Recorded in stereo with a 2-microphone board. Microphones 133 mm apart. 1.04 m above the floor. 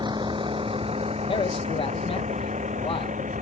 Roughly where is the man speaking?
Left.